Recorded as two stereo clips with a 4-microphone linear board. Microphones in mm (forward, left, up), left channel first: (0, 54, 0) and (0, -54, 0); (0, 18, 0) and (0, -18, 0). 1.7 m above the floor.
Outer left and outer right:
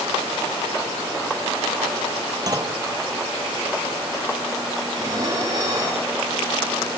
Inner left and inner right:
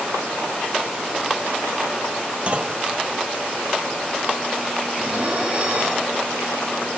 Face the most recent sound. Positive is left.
turn(degrees=-40)  # may be behind; listen again after turning